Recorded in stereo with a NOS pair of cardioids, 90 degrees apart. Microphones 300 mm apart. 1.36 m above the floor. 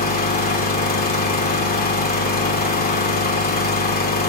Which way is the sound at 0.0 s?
30° left.